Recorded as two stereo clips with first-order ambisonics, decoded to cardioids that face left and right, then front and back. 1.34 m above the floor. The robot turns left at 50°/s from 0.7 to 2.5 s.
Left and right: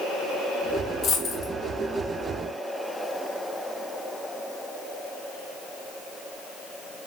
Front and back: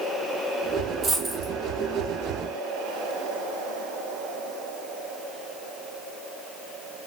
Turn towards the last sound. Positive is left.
turn(degrees=35)